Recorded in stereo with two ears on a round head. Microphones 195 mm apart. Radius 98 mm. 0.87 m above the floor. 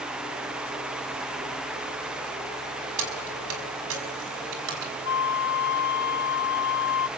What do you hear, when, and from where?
3.0 s keys jangling: 80° right, 5.5 m; by 4.9 s 60° right (ahead or behind), 5.5 m
5.0 s a flute: 50° left (ahead or behind), 0.9 m